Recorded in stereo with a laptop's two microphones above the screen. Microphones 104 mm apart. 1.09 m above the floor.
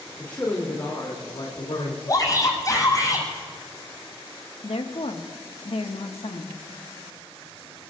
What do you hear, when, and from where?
0.2 s a man speaking: 15° left (ahead or behind), 3 m; by 2.0 s 70° left (ahead or behind), 3 m
2.1 s a shout: 35° left (ahead or behind), 7.5 m
4.6 s a woman speaking: 70° left (ahead or behind), 1.6 m